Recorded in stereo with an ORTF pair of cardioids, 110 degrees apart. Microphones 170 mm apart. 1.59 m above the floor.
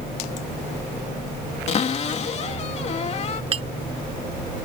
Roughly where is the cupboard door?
Ahead left.